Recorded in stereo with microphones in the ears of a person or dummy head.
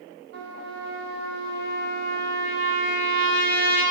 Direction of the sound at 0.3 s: 55° right (ahead or behind).